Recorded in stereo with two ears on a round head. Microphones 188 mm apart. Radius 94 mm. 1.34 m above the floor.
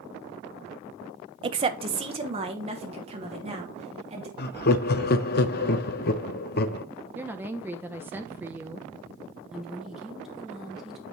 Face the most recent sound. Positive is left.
turn(degrees=-5)  # may be behind; listen again after turning